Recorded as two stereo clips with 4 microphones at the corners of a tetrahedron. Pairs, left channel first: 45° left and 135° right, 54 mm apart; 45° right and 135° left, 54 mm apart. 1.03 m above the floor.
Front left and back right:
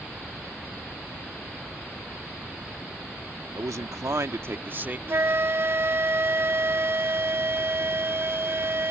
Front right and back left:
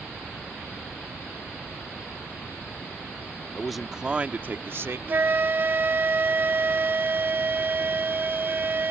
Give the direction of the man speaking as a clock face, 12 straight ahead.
4 o'clock.